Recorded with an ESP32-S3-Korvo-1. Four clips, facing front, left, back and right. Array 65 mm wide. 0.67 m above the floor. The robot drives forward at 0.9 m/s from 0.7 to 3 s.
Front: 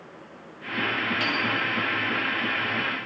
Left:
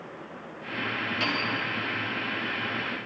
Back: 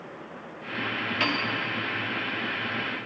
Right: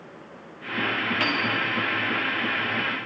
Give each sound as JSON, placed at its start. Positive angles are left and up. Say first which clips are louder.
{"t": 1.2, "sound": "a piano", "louder": "right 3 dB, front 1 dB", "azimuth_deg": -130, "distance_m": 1.6}